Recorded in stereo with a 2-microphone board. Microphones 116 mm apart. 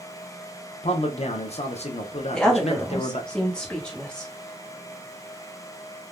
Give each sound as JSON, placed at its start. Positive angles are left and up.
{"t": 0.8, "sound": "a man speaking", "side_deg": 55, "distance_m": 0.6}
{"t": 2.3, "sound": "a woman speaking", "side_deg": 5, "distance_m": 0.9}